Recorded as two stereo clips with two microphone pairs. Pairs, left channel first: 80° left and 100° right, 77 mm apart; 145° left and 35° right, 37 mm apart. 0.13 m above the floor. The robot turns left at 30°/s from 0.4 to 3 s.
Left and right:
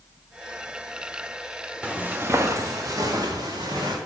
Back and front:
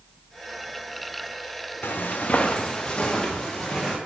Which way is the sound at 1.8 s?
Straight behind.